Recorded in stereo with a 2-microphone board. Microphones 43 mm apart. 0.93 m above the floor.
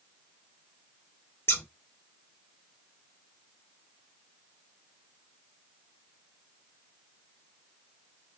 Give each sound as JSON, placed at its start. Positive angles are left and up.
{"t": 1.5, "sound": "scissors", "side_deg": 60, "distance_m": 2.5}